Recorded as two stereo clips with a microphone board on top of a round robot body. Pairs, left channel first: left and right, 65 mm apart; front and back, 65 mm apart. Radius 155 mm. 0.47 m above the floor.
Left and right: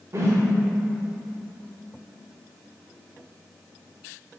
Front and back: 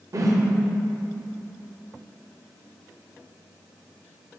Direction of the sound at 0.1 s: 140° right.